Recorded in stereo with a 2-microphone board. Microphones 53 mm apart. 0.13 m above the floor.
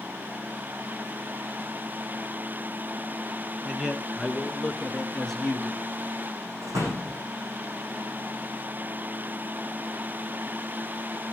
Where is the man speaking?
10° right (ahead or behind), 1.3 m; by 5.9 s 15° left (ahead or behind), 2 m.